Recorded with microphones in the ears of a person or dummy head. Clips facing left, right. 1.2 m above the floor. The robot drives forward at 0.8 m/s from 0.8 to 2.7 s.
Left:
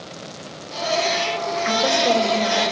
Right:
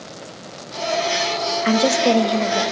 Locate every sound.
1.6 s a woman speaking: 45° right (ahead or behind), 0.7 m; by 2.6 s 20° right (ahead or behind), 1.4 m